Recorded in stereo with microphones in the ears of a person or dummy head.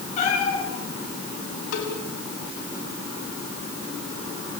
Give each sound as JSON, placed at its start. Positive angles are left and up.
{"t": 0.2, "sound": "a cat meowing", "side_deg": 40, "distance_m": 9.0}
{"t": 1.7, "sound": "a cowbell", "side_deg": 80, "distance_m": 4.5}